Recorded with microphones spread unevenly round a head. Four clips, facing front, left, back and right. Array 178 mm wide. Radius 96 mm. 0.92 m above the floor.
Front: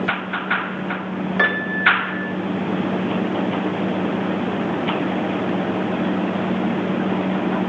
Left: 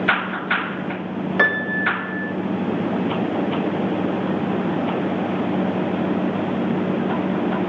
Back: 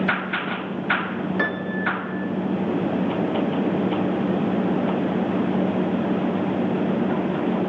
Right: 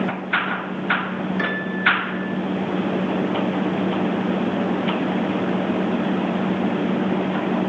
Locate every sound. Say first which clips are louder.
1.4 s a piano: left 4 dB, front 8 dB; 60° left, 0.8 m